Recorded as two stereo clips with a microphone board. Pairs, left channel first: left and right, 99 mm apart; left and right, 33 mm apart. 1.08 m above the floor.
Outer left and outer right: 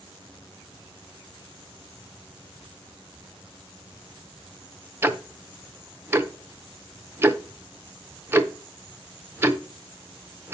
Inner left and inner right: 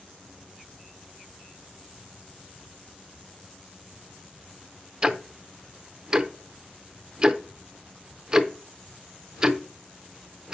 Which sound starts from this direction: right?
Ticking, at 5.0 s.